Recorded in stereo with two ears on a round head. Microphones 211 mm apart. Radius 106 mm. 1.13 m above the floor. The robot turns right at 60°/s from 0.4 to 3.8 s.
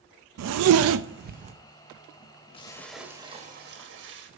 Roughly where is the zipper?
Right.